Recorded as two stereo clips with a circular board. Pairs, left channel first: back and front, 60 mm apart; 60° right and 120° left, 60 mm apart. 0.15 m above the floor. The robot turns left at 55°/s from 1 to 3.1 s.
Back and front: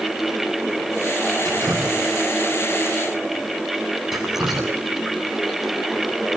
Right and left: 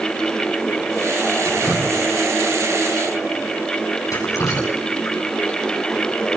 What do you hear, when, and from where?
1.4 s dripping: 5° left, 7 m; by 5.6 s 85° right, 7 m